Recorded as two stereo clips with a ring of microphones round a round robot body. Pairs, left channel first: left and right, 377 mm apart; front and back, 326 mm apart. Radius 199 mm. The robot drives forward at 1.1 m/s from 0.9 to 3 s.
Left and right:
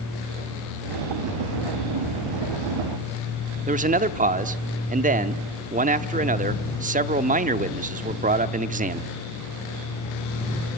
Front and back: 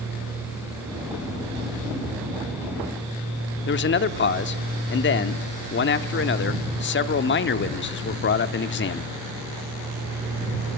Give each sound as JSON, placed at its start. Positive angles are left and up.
{"t": 3.7, "sound": "a man speaking", "azimuth_deg": -30, "distance_m": 0.9}